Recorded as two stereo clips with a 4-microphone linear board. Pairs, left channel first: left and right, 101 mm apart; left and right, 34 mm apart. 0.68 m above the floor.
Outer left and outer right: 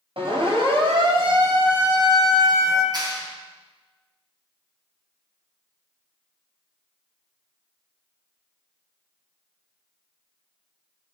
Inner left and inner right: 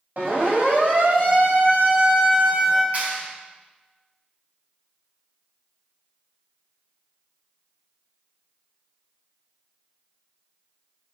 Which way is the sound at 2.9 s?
40° right (ahead or behind).